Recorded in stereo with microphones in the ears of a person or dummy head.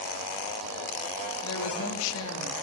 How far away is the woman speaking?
About 2 m.